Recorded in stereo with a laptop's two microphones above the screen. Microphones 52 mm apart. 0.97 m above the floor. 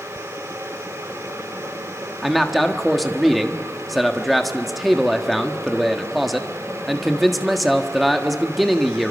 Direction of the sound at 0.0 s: 75° right (ahead or behind).